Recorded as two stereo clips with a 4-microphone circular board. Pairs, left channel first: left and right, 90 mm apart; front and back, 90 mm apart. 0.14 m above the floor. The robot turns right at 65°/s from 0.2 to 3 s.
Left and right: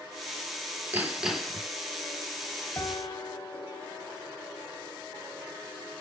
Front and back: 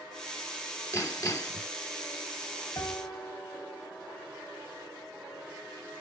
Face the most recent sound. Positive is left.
turn(degrees=65)